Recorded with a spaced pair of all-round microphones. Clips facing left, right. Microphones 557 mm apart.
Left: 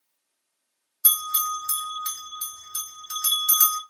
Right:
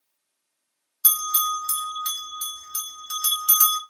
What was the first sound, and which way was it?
A bell, 55° right (ahead or behind).